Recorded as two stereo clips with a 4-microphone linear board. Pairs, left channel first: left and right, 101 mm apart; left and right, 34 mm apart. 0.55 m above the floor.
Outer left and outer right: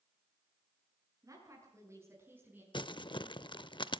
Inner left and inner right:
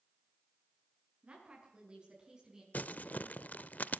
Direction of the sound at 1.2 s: 35° right (ahead or behind).